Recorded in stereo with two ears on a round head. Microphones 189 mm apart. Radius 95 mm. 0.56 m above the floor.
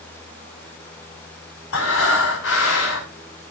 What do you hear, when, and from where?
1.7 s breathing: 65° left (ahead or behind), 5.5 m